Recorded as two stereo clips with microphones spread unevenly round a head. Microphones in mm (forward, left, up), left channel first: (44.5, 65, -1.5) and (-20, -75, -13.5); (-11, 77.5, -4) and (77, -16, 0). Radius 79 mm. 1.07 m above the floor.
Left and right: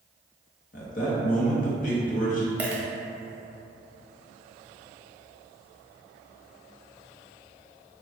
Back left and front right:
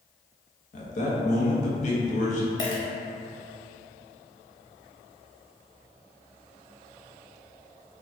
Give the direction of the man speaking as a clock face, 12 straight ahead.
8 o'clock.